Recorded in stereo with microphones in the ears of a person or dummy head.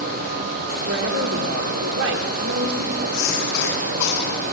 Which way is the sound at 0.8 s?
75° right (ahead or behind).